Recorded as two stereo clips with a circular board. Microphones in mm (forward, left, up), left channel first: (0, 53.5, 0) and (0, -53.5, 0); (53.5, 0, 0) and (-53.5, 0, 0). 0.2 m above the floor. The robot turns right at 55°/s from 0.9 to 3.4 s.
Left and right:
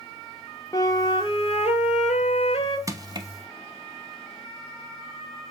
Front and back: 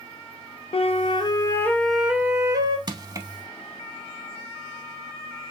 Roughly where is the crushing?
Behind right.